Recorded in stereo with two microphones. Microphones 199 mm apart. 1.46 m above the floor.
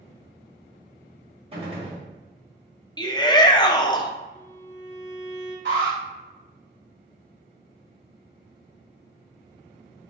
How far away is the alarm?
About 2.0 m.